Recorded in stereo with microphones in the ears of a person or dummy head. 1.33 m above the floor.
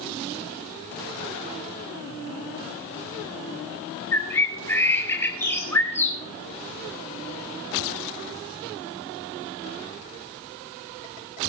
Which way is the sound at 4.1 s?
10° left (ahead or behind).